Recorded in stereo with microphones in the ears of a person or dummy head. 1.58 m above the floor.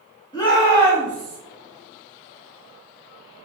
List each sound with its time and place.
0.3 s a shout: 20° left (ahead or behind), 1.4 m; by 1.4 s centre (ahead or behind), 1.0 m